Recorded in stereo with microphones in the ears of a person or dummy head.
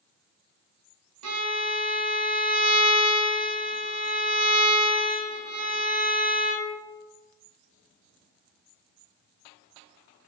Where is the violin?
80° right, 1.1 m.